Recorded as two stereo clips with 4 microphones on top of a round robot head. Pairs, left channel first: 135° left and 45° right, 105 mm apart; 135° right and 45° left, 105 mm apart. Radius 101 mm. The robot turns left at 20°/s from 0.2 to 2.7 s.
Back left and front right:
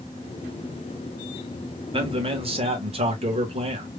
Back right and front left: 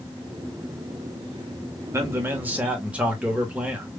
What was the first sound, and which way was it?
A man speaking, 15° right.